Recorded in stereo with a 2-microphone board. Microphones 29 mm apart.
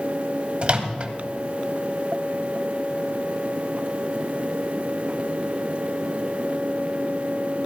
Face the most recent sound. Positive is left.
turn(degrees=-40)  # may be behind; listen again after turning